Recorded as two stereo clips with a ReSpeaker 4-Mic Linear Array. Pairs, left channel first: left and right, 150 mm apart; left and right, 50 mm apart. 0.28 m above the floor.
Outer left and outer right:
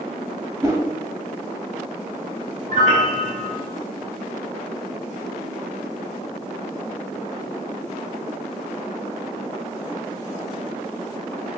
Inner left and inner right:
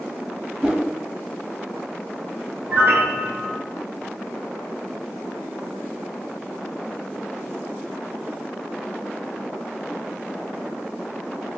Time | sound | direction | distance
0.6 | a whoosh | 20° right (ahead or behind) | 0.5 m
2.7 | a piano | 60° right (ahead or behind) | 0.7 m